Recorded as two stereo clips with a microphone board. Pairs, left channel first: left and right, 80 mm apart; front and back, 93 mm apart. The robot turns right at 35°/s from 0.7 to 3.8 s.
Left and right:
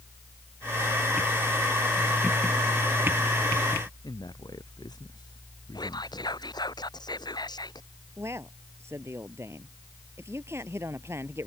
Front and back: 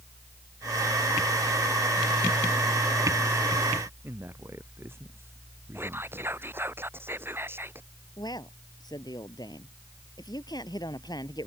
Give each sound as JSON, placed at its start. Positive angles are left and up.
{"t": 4.0, "sound": "a man speaking", "azimuth_deg": 120}
{"t": 5.8, "sound": "whispering", "azimuth_deg": 115}
{"t": 8.2, "sound": "a man speaking", "azimuth_deg": -35}